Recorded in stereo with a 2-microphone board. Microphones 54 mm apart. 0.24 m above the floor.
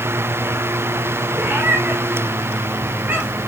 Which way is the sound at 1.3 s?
30° right (ahead or behind).